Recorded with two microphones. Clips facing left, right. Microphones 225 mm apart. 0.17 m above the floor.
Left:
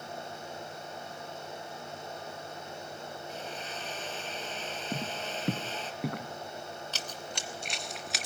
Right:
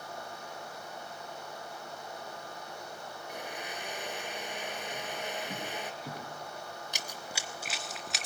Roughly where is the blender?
Centre.